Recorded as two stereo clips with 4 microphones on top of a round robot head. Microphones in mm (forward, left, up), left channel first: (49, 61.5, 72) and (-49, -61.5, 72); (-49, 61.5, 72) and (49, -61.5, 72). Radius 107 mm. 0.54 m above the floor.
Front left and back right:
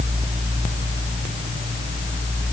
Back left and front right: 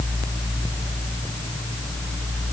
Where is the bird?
I don't hear a bird.